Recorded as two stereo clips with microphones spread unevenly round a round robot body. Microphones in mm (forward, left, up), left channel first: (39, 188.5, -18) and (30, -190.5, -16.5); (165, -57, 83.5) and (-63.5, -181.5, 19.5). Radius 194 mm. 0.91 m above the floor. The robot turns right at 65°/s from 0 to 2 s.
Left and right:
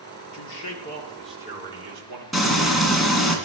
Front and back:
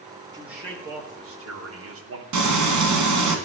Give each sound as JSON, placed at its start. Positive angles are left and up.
{"t": 0.3, "sound": "a man speaking", "azimuth_deg": 115, "distance_m": 3.0}
{"t": 2.3, "sound": "frying", "azimuth_deg": 180, "distance_m": 2.5}